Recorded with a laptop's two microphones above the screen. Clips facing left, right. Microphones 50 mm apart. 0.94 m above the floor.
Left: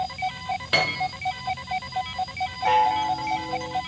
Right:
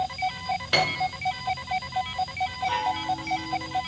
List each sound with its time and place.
0.7 s a piano: 5° left (ahead or behind), 3 m
2.6 s a chime: 85° left, 4 m